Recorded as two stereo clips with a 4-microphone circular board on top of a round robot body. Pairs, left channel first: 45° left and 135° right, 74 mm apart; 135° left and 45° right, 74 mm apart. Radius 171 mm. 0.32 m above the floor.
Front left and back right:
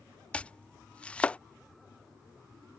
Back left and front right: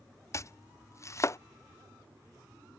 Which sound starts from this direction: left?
Chopping, at 0.3 s.